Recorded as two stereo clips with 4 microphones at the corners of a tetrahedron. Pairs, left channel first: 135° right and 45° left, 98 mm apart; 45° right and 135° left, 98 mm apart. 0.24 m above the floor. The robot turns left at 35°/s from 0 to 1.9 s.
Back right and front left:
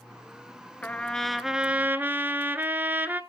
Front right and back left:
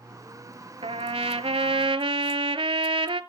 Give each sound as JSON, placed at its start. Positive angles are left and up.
{"t": 0.8, "sound": "a trumpet", "azimuth_deg": 155, "distance_m": 0.7}